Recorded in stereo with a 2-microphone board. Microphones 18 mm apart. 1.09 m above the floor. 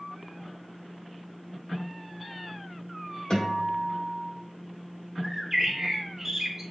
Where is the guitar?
55° left (ahead or behind), 1.8 m.